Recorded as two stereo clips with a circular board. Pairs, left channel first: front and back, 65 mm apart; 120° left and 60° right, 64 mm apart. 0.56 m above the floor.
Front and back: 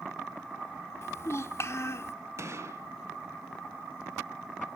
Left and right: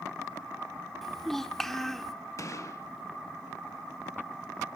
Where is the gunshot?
150° left, 0.7 m.